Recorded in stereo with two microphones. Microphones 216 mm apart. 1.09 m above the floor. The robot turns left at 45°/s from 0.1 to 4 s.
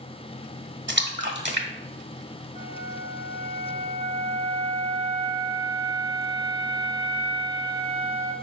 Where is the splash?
55° right (ahead or behind), 1.3 m; by 3.0 s 10° right (ahead or behind), 1.3 m.